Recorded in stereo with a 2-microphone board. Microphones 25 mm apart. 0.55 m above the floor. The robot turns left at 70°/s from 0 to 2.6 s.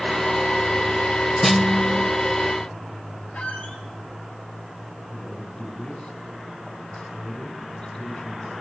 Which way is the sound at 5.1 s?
50° left (ahead or behind).